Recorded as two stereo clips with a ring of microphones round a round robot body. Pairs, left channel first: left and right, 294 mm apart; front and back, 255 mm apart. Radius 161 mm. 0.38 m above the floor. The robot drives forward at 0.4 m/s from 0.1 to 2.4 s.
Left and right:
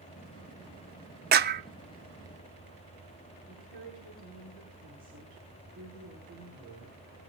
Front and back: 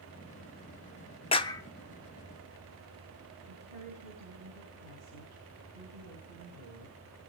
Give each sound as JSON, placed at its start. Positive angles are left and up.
{"t": 1.3, "sound": "a clap", "azimuth_deg": -55, "distance_m": 0.7}
{"t": 3.5, "sound": "a woman speaking", "azimuth_deg": -155, "distance_m": 7.0}